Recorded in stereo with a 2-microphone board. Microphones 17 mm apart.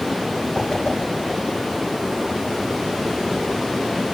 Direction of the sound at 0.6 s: 65° left (ahead or behind).